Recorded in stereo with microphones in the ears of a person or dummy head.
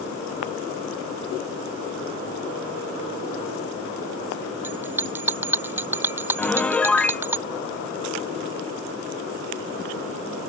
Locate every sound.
4.6 s a bell: 10° right (ahead or behind)
6.4 s a piano: 10° left (ahead or behind)